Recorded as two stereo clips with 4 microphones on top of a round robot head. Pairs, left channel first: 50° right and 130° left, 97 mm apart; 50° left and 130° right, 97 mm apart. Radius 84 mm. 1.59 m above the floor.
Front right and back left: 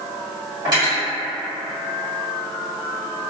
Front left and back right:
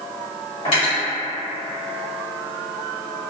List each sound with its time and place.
0.7 s cutlery clinking: 75° left, 1.4 m